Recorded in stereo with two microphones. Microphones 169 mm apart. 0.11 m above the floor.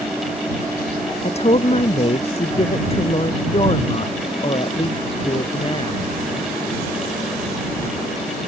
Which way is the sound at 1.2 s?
40° left (ahead or behind).